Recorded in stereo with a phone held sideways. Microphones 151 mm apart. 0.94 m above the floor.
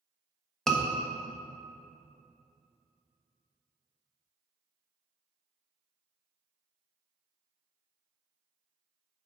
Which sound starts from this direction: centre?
A scream, at 0.7 s.